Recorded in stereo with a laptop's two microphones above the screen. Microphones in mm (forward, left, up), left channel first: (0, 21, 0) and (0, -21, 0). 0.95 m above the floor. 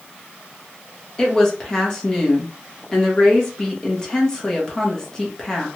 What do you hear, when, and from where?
1.2 s a woman speaking: 15° left (ahead or behind), 1.0 m